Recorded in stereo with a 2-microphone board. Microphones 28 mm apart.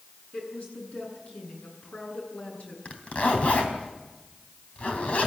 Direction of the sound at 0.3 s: 60° left (ahead or behind).